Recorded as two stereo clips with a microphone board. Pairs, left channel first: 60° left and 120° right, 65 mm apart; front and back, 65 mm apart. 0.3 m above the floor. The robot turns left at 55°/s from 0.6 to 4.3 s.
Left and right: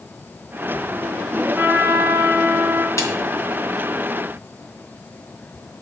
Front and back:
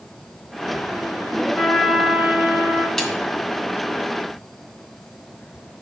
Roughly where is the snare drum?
Left.